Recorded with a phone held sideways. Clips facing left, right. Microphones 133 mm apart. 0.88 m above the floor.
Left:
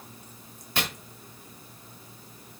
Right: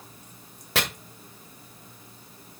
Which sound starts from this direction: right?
Chopping, at 0.8 s.